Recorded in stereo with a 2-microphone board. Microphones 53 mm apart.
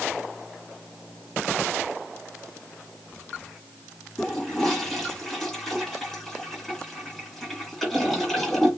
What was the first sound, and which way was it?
A toilet flushing, 10° left (ahead or behind).